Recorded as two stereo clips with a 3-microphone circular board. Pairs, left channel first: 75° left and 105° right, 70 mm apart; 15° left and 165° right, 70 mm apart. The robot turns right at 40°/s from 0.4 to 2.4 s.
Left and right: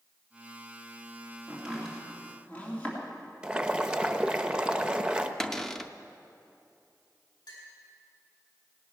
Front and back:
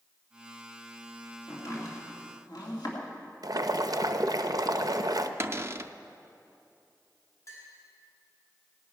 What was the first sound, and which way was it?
Chopping, 25° right.